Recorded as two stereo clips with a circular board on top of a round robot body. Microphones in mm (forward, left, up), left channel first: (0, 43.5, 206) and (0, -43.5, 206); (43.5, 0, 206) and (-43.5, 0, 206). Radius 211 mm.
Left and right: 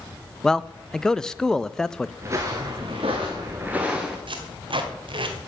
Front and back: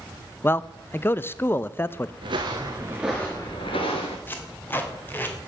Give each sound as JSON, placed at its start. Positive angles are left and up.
{"t": 0.4, "sound": "a man speaking", "azimuth_deg": 15, "distance_m": 0.7}
{"t": 2.2, "sound": "footsteps", "azimuth_deg": -145, "distance_m": 0.7}
{"t": 4.3, "sound": "tape being pulled", "azimuth_deg": -65, "distance_m": 2.0}